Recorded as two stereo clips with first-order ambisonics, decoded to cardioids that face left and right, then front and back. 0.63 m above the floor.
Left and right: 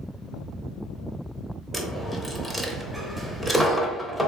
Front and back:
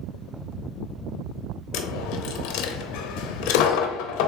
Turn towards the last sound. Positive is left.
turn(degrees=-5)